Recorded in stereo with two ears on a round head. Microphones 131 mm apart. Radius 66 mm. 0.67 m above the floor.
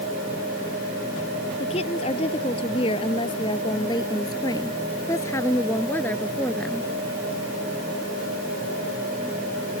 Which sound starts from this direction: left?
A woman speaking, at 1.6 s.